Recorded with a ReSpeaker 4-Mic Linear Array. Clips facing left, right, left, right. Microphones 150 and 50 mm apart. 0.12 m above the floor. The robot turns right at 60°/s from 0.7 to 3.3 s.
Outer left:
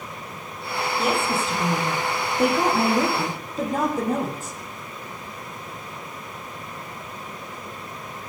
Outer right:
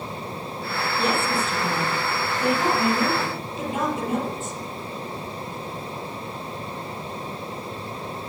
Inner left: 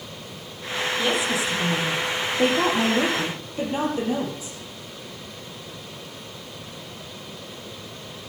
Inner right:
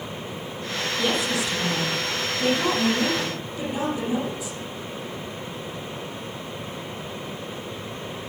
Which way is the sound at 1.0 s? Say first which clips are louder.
Even, even; 5° left.